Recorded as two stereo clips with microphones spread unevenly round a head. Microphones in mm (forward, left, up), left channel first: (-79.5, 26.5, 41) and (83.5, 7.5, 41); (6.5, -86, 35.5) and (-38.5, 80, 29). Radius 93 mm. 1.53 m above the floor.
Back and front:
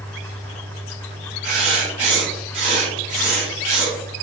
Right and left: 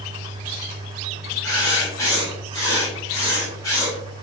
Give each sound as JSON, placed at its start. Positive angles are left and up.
{"t": 1.4, "sound": "writing", "azimuth_deg": -5, "distance_m": 2.0}